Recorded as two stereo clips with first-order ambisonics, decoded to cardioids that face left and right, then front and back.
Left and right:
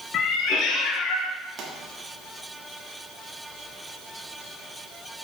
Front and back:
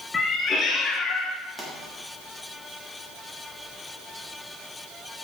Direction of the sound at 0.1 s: 60° left.